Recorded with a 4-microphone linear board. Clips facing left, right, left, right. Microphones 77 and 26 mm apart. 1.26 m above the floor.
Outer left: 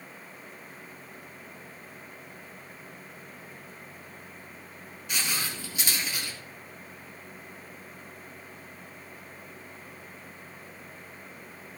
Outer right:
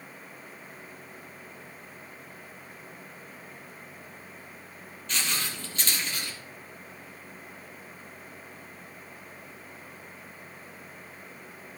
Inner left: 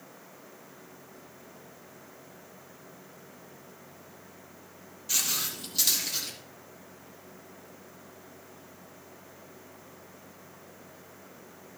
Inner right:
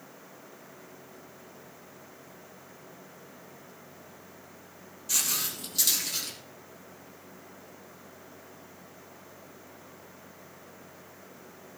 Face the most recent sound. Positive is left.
turn(degrees=5)  # may be behind; listen again after turning